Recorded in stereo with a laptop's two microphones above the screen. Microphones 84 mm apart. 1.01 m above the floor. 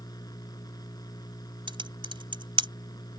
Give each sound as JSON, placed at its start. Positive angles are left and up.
{"t": 0.0, "sound": "a machine running", "side_deg": 50}
{"t": 1.7, "sound": "typing on a keyboard", "side_deg": -80}